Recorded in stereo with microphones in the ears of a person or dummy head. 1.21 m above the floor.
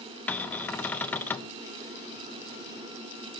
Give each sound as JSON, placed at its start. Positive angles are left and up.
{"t": 0.3, "sound": "a cupboard door", "side_deg": 10, "distance_m": 0.6}